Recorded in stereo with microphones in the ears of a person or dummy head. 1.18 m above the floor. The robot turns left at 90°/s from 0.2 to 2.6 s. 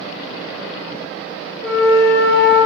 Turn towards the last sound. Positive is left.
turn(degrees=-75)